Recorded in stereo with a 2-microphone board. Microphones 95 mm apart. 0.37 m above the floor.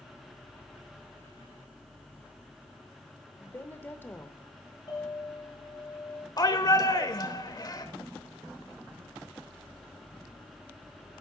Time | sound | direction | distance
3.4 | a woman speaking | 20° left (ahead or behind) | 1.0 m
4.9 | a clink | 45° left (ahead or behind) | 8 m
6.4 | a shout | 40° left (ahead or behind) | 1.0 m